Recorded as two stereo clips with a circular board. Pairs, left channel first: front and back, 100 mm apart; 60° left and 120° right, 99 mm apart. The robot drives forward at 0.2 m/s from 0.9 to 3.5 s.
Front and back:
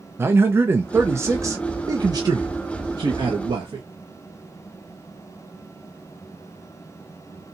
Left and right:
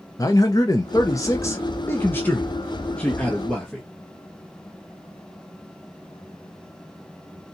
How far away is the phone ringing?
I don't hear a phone ringing.